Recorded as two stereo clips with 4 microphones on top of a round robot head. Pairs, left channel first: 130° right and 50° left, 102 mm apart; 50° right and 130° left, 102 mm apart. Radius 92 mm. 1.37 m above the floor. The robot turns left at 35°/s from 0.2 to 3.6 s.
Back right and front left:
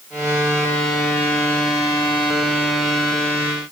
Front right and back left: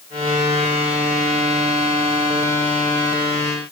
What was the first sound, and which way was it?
Only background noise.